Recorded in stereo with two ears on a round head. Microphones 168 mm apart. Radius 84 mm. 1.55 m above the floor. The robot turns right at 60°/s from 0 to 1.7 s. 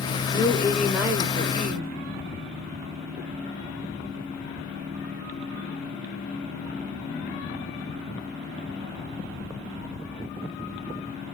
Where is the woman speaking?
150° left, 1.0 m; by 1.9 s 130° right, 1.0 m.